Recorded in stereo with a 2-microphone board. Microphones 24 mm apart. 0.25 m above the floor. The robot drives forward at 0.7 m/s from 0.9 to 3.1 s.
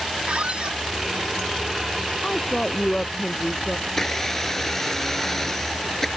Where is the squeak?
50° right (ahead or behind).